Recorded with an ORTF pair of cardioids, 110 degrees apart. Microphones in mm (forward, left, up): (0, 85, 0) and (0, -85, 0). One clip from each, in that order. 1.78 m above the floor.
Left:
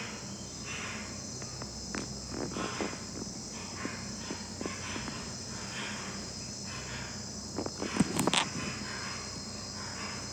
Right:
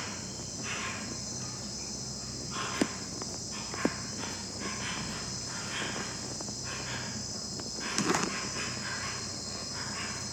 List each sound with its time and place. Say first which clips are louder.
0.0 s an insect: right 2 dB; 50° right, 1.3 m